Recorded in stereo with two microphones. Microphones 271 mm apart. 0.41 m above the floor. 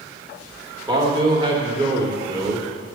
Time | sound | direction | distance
0.9 | a man speaking | 20° right (ahead or behind) | 0.8 m